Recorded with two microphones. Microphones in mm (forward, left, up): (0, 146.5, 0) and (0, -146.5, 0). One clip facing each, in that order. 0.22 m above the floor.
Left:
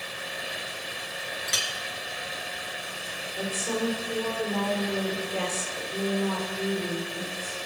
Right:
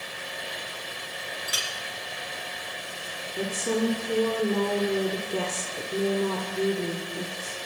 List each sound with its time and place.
1.5 s a clink: 30° left (ahead or behind), 2 m
3.4 s a woman speaking: 55° right (ahead or behind), 5 m